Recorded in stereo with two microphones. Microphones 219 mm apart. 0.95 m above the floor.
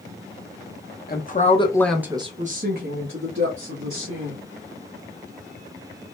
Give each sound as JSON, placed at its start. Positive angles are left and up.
{"t": 1.1, "sound": "a woman speaking", "side_deg": 45, "distance_m": 0.9}